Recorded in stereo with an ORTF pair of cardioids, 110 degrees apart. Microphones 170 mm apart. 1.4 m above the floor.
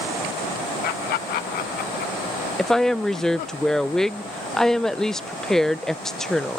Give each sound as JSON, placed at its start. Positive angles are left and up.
{"t": 0.8, "sound": "laughter", "azimuth_deg": 65}
{"t": 2.6, "sound": "a woman speaking", "azimuth_deg": 5}